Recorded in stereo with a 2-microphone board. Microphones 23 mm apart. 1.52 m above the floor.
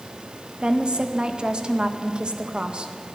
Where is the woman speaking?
40° right (ahead or behind), 1.8 m.